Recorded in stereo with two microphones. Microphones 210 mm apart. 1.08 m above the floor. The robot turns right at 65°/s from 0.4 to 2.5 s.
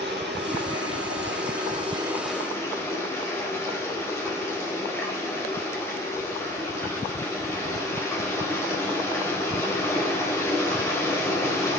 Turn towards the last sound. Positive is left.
turn(degrees=15)